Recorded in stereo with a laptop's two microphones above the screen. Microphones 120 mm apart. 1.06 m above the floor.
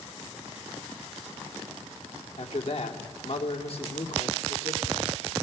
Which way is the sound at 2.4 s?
55° left (ahead or behind).